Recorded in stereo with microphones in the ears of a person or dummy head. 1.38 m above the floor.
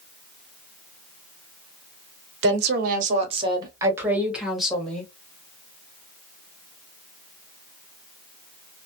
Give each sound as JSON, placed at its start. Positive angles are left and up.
{"t": 2.4, "sound": "a woman speaking", "side_deg": -65, "distance_m": 0.9}